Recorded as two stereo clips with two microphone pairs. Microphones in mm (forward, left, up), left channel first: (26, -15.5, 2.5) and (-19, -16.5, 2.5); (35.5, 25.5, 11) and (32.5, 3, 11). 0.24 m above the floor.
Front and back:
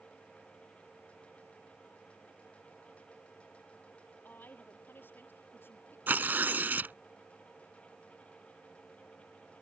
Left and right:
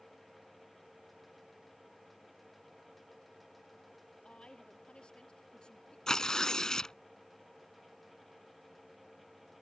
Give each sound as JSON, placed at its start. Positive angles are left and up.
{"t": 4.2, "sound": "a woman speaking", "azimuth_deg": 40}
{"t": 6.1, "sound": "tearing paper", "azimuth_deg": 140}